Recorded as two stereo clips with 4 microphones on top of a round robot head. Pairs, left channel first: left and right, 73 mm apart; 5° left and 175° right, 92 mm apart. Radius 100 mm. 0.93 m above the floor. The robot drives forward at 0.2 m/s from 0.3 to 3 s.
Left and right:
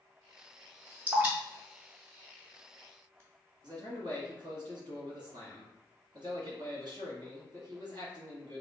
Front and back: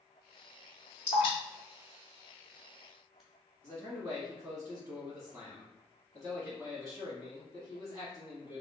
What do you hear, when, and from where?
1.1 s dripping: 25° right, 0.6 m; by 3.2 s 90° right, 0.5 m
3.6 s a man speaking: 115° right, 1.5 m